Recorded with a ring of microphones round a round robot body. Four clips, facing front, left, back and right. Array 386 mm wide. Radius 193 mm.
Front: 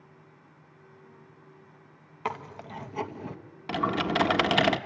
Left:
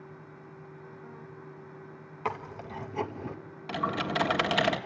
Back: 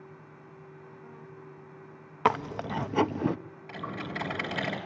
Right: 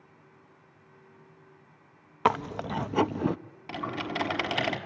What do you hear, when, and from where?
2.2 s chewing: 130° right, 0.7 m
3.7 s typing on a keyboard: 5° left, 1.6 m